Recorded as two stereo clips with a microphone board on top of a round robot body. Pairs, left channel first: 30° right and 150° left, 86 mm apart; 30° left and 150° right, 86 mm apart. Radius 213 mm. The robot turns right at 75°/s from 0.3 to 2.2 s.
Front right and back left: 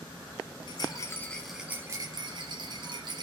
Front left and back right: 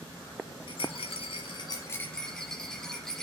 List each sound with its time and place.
0.7 s a rattle: straight ahead, 1.2 m; by 3.2 s 115° left, 1.2 m